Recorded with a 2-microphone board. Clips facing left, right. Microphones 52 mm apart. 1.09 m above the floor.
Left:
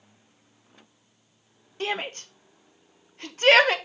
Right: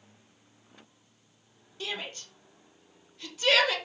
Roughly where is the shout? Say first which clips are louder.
Left 7 dB; left.